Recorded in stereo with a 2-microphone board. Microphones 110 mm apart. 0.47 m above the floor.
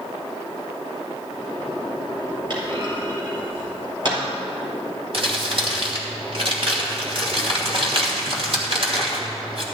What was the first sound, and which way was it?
A clunk, 45° right (ahead or behind).